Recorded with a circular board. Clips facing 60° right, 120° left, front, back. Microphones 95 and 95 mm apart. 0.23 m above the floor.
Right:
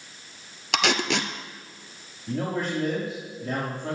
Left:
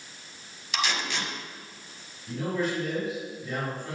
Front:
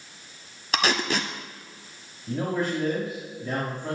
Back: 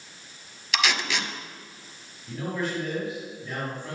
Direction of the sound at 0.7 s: 50° right.